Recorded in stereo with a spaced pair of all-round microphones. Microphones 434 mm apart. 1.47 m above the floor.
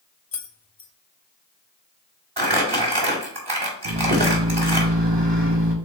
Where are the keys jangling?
50° left (ahead or behind), 0.5 m.